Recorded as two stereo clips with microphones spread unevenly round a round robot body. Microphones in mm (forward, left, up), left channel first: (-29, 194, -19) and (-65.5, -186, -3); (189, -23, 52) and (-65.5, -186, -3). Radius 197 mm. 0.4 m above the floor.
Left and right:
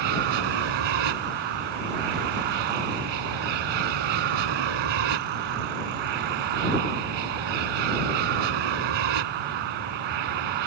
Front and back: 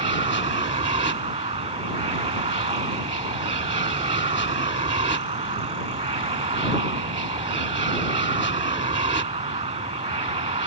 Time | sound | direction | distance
0.0 | an aircraft | 80° right | ?